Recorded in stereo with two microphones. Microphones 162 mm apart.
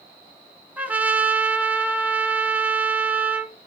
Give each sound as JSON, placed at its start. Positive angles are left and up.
{"t": 0.8, "sound": "a trumpet", "side_deg": -10, "distance_m": 1.4}